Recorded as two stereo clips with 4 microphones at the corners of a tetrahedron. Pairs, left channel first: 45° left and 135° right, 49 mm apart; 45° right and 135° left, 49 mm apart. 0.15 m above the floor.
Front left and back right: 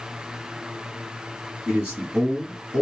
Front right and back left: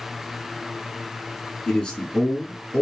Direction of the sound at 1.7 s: 100° right.